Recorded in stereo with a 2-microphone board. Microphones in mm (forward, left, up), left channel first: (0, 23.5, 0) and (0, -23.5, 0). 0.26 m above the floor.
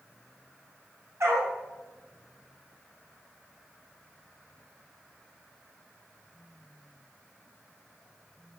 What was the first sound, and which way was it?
A dog barking, 85° right.